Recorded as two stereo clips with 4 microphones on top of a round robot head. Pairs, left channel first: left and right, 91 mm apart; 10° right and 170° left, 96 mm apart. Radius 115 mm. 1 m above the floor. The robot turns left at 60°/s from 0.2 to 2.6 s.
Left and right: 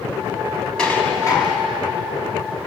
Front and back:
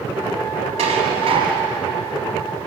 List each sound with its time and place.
0.8 s dishes clattering: 170° left, 5.5 m; by 1.7 s 120° left, 5.5 m